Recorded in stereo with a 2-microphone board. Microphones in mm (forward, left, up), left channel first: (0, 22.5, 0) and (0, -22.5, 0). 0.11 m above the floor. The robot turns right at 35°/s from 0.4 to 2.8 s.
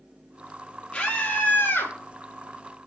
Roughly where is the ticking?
I don't hear ticking.